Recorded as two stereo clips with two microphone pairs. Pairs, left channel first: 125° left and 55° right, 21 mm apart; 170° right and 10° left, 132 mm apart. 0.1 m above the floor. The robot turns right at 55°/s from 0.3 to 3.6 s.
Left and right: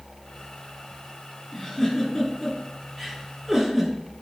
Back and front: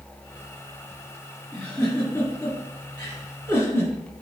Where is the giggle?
110° left, 1.6 m; by 3.9 s 135° right, 1.6 m.